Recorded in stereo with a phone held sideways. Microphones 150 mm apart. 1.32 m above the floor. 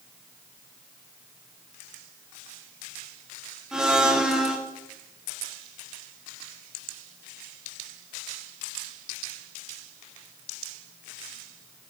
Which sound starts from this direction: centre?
A blender, at 3.7 s.